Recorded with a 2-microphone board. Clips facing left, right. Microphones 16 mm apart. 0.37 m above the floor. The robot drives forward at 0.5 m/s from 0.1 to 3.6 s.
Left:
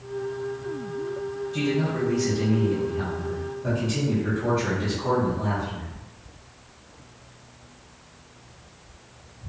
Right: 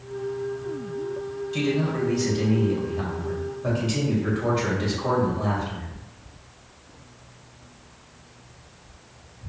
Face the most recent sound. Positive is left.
turn(degrees=-45)  # may be behind; listen again after turning